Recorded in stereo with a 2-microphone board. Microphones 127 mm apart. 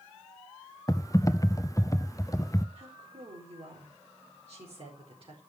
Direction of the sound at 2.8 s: 45° right (ahead or behind).